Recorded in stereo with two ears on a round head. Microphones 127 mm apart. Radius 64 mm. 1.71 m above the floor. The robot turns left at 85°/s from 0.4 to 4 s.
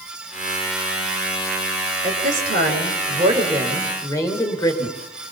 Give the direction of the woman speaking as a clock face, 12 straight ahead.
1 o'clock.